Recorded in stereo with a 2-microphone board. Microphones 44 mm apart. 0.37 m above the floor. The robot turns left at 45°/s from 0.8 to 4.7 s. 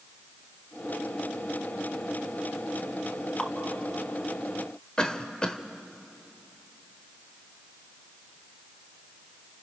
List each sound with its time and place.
3.4 s dripping: 20° left (ahead or behind), 1.0 m; by 3.5 s 15° left (ahead or behind), 1.0 m
5.0 s a cough: 20° left (ahead or behind), 1.0 m